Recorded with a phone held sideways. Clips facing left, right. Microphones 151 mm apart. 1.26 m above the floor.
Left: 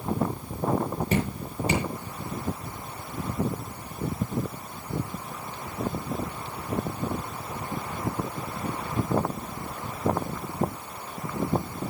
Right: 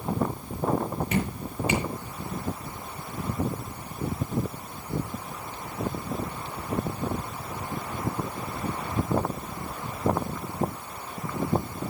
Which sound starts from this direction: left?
Dripping, at 1.1 s.